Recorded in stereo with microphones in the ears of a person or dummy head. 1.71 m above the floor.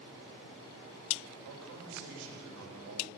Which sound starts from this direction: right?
A man speaking, at 1.4 s.